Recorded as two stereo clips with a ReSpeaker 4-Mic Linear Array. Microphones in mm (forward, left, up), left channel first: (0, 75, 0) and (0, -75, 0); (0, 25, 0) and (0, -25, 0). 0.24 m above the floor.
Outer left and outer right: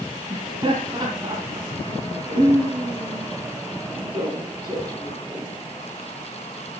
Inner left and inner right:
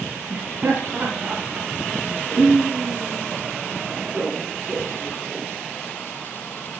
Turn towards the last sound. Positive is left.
turn(degrees=-35)  # may be behind; listen again after turning